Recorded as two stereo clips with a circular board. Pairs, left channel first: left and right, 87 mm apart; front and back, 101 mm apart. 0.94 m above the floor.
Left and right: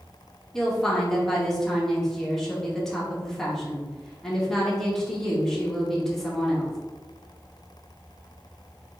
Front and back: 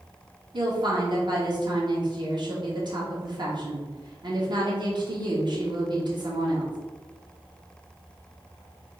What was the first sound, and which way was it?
A woman speaking, 175° left.